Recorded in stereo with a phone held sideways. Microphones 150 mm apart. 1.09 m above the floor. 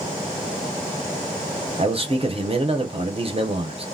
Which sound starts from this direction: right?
A man speaking, at 1.8 s.